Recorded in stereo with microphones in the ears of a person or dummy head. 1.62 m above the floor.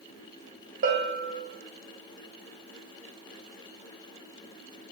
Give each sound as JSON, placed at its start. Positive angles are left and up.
{"t": 0.8, "sound": "a bell", "side_deg": -45, "distance_m": 1.6}